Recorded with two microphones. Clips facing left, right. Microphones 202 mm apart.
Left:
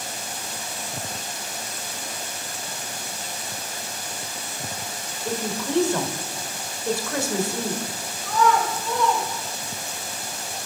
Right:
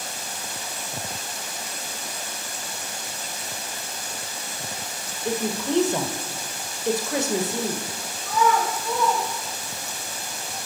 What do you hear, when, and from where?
5.2 s a woman speaking: 20° right (ahead or behind), 1.0 m
8.2 s a child speaking: 5° right (ahead or behind), 2 m